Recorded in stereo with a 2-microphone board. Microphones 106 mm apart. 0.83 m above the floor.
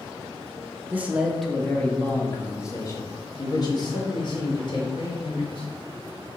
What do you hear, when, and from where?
0.9 s a man speaking: 20° right (ahead or behind), 1.2 m; by 5.7 s 55° left (ahead or behind), 4 m